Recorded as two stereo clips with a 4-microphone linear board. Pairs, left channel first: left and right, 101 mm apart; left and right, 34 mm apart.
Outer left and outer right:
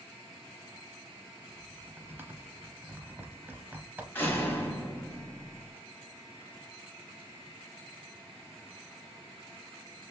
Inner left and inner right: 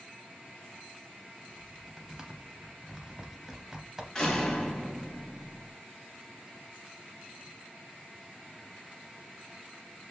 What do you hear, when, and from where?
1.5 s typing on a keyboard: 20° right (ahead or behind), 0.6 m
4.2 s a door slam: 20° left (ahead or behind), 1.2 m